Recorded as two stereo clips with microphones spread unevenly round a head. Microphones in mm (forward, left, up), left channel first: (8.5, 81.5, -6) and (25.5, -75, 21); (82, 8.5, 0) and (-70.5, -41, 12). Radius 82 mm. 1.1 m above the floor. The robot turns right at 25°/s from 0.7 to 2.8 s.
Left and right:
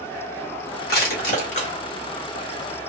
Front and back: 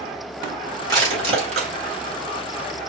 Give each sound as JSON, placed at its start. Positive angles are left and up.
{"t": 0.9, "sound": "crushing", "azimuth_deg": 130, "distance_m": 1.8}